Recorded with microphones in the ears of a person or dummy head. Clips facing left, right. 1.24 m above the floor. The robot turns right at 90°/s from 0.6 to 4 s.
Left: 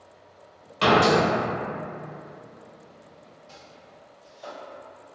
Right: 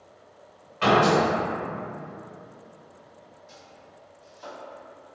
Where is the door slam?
70° left, 1.1 m; by 1.2 s 100° left, 1.1 m.